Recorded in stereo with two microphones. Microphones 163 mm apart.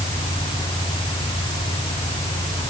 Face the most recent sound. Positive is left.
No sound to turn to.